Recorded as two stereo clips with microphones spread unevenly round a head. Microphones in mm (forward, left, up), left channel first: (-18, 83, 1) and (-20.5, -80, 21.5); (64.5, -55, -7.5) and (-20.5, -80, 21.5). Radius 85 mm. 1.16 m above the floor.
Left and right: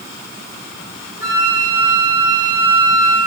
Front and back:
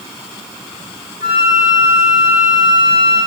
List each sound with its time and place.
1.2 s a flute: 35° left, 7 m